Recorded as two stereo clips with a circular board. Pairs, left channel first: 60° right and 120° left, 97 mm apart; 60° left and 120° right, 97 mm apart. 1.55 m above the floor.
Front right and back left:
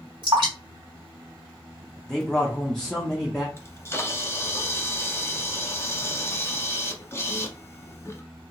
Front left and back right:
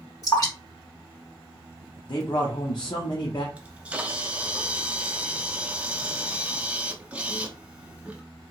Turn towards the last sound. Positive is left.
turn(degrees=-60)